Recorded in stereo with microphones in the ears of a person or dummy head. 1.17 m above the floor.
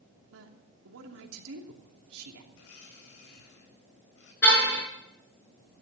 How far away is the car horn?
About 6 m.